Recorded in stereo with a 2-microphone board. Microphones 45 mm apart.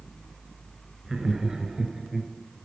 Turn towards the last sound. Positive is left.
turn(degrees=-10)  # may be behind; listen again after turning